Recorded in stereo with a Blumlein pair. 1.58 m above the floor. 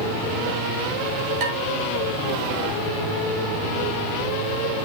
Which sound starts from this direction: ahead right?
Dishes clattering, at 1.4 s.